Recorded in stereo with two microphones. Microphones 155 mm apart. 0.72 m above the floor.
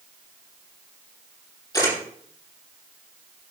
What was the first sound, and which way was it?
A camera shutter, 25° left (ahead or behind).